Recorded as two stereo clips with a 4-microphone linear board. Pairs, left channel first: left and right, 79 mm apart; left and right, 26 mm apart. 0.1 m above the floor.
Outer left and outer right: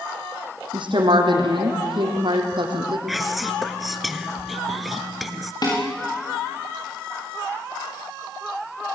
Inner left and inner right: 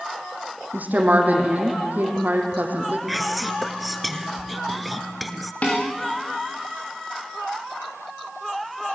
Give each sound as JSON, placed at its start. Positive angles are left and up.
{"t": 0.7, "sound": "a woman speaking", "side_deg": -70, "distance_m": 4.0}
{"t": 3.1, "sound": "whispering", "side_deg": 0, "distance_m": 1.1}
{"t": 5.6, "sound": "dishes clattering", "side_deg": 50, "distance_m": 7.5}